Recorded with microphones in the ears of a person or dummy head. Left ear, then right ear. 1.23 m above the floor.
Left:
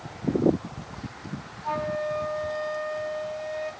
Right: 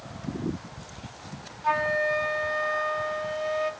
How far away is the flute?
About 1.1 m.